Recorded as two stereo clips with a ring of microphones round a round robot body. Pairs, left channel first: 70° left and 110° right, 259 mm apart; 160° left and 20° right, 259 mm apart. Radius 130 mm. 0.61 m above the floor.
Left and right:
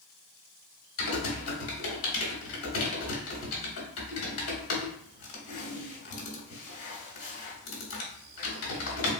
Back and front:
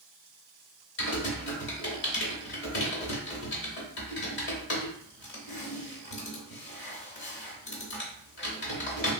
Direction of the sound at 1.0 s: 110° left.